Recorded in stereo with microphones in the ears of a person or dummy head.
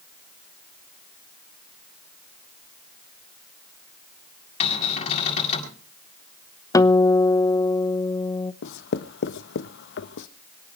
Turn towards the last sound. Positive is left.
turn(degrees=65)  # may be behind; listen again after turning